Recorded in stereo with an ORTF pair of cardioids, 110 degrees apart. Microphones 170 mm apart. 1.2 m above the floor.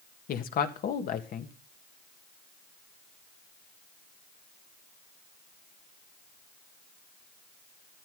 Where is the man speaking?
55° left, 1.6 m.